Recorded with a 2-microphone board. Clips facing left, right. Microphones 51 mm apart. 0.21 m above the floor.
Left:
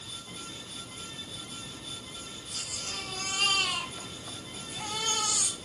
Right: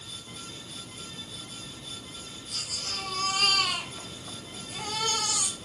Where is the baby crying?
80° right, 6.5 m.